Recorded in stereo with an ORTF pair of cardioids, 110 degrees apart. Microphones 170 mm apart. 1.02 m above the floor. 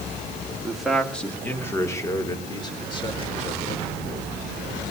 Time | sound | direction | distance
0.6 | a man speaking | 5° right | 3 m